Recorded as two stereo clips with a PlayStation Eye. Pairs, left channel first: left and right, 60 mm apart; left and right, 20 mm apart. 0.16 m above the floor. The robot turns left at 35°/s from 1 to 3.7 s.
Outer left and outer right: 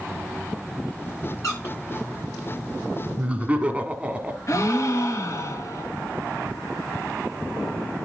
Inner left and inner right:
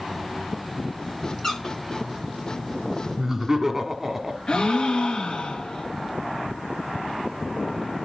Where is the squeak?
55° left (ahead or behind), 8.5 m; by 1.8 s 45° left (ahead or behind), 8.5 m.